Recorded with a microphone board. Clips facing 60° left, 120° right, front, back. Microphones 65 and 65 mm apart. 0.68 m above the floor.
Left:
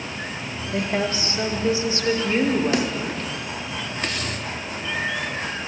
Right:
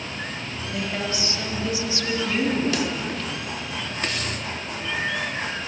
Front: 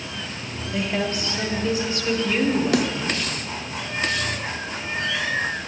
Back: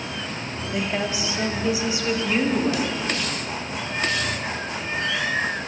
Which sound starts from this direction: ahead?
A snare drum, at 2.7 s.